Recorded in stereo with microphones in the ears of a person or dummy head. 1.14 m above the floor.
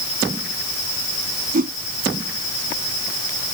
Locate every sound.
1.5 s a whoosh: 40° right (ahead or behind)